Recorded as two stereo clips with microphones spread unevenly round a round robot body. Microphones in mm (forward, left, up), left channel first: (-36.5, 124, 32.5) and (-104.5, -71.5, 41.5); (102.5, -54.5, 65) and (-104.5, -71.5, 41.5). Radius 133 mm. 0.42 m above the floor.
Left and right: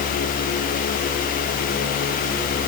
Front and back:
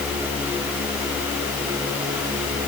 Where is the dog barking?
I don't hear a dog barking.